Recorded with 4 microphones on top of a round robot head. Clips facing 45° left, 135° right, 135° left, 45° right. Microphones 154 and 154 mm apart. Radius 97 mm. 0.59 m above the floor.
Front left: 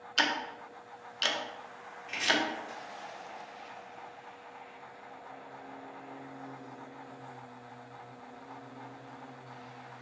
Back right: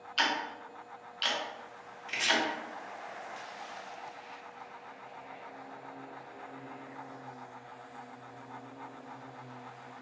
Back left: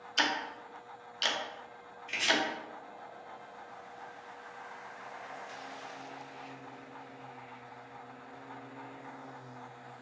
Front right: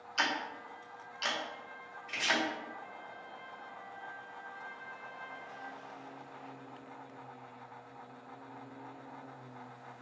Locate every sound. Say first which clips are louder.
0.2 s ticking: even, back left 2 dB; 80° left, 0.6 m
2.1 s chopping: front left 2 dB, back left 3 dB; 175° right, 1.4 m